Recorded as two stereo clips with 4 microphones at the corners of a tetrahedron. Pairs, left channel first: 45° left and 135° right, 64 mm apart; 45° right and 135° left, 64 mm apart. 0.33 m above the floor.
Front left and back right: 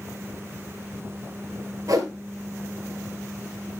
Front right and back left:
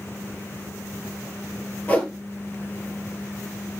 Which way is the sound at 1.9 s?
110° right.